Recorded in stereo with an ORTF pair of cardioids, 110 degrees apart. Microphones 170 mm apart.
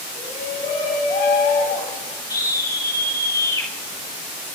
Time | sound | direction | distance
0.1 | a shout | 65° left | 9 m
2.3 | a scream | 20° left | 3 m